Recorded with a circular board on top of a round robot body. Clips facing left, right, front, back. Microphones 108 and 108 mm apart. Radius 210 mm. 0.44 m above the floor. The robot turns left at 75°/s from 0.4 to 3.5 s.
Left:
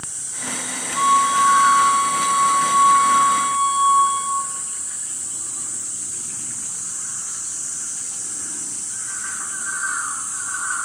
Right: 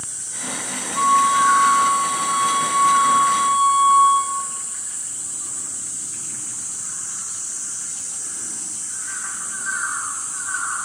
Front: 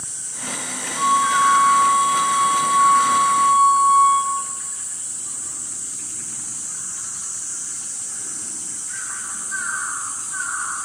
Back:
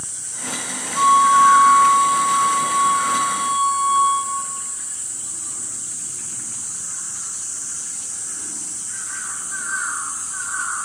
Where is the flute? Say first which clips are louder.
Even, back 5 dB; 155° left, 3.5 m; by 4.4 s 35° right, 3.5 m.